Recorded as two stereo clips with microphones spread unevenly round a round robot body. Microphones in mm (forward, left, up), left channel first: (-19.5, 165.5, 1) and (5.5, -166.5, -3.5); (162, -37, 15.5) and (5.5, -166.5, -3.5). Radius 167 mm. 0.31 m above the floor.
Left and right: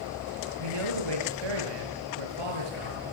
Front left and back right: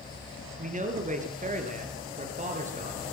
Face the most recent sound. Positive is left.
turn(degrees=-90)